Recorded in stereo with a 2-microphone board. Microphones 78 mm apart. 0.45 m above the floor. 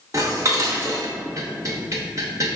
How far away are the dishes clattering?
About 0.8 m.